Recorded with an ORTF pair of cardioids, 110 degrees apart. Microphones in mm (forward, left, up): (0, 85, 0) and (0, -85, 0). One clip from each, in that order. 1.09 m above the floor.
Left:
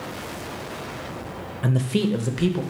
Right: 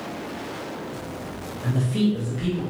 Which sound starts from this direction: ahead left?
A man speaking, at 1.6 s.